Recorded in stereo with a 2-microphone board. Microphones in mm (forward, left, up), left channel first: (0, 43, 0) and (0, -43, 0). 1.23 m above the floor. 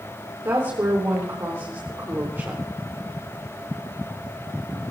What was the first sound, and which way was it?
A woman speaking, 35° right (ahead or behind).